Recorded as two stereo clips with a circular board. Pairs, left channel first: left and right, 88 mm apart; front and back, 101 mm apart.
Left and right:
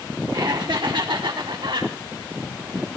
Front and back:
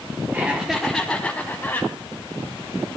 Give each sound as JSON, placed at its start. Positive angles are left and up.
{"t": 0.3, "sound": "laughter", "azimuth_deg": -115, "distance_m": 1.1}